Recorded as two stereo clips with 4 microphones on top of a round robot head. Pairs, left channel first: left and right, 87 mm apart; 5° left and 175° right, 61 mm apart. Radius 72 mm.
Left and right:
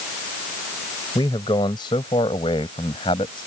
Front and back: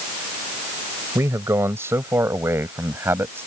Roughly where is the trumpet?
I don't hear a trumpet.